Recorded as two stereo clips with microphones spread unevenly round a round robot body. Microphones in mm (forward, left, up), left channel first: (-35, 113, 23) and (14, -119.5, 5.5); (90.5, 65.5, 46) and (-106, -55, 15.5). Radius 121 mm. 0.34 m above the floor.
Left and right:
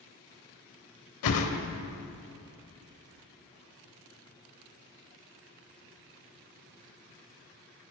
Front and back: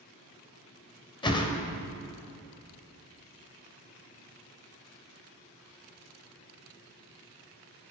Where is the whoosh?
105° left, 0.8 m.